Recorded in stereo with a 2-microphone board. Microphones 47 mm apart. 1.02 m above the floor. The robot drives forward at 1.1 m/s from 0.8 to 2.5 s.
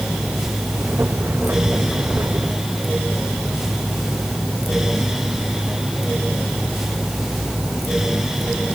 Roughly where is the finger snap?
I don't hear a finger snap.